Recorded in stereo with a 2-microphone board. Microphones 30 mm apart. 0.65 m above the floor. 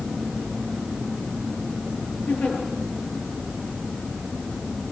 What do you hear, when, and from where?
2.3 s a giggle: 65° left (ahead or behind), 8 m